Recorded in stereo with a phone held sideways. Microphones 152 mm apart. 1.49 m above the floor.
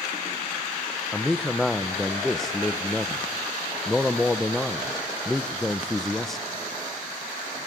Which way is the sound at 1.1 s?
Centre (ahead or behind).